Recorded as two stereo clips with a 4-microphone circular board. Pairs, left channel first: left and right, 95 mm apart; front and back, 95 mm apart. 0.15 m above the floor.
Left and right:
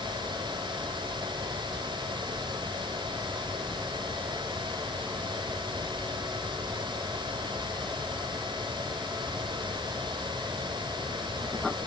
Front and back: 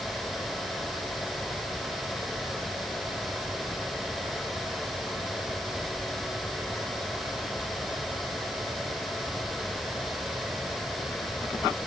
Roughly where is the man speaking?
I don't hear a man speaking.